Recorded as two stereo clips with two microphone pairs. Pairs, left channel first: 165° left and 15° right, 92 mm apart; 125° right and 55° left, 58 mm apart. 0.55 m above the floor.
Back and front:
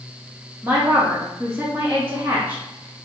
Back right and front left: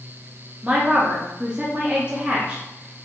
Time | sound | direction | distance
0.6 | a woman speaking | 15° left | 0.7 m